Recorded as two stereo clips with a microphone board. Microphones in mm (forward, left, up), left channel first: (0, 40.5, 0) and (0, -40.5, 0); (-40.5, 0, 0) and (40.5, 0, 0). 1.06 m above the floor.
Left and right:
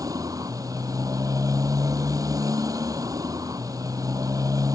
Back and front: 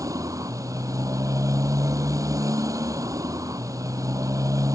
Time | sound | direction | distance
0.0 | a motorcycle | 50° right | ?